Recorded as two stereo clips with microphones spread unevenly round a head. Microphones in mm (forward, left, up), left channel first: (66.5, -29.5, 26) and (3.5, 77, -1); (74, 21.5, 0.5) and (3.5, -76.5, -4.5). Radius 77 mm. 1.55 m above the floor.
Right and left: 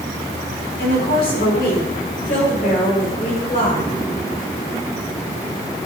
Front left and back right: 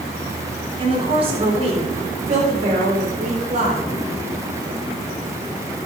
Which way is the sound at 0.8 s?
85° right.